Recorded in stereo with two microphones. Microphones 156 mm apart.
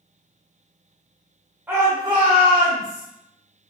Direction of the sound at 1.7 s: 15° right (ahead or behind).